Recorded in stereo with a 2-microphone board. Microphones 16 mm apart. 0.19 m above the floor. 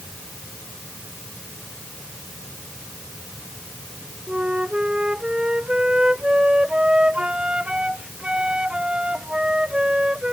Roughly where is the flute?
Right.